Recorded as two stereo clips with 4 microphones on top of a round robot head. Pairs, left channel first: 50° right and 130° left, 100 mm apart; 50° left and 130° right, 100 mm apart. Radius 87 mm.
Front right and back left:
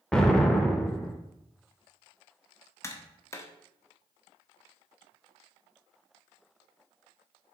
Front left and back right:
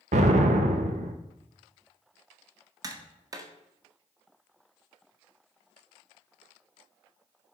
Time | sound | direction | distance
0.1 | an explosion | 135° right | 0.7 m
2.8 | tapping | 95° right | 1.0 m